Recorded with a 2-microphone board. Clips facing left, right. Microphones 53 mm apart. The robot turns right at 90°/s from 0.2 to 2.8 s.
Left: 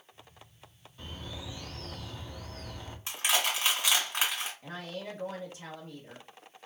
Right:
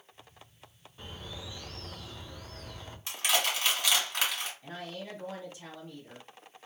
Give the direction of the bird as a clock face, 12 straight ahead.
1 o'clock.